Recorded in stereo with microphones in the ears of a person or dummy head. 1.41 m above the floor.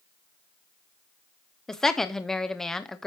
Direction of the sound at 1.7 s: Centre (ahead or behind).